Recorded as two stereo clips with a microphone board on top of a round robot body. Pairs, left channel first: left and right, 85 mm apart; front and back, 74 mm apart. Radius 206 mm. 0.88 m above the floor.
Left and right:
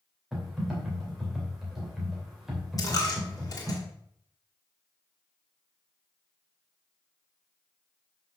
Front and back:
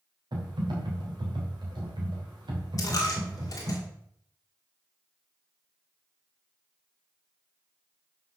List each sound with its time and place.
0.3 s typing on a keyboard: 175° right, 3 m
2.8 s a dropped coin: 40° left, 1.9 m